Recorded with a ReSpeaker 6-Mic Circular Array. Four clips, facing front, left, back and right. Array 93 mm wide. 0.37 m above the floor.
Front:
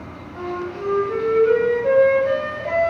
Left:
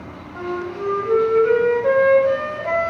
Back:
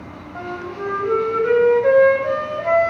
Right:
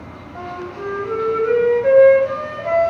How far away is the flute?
About 1.0 m.